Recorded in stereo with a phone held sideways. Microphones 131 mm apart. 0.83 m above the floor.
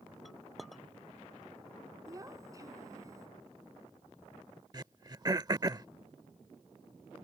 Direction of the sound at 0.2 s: Centre (ahead or behind).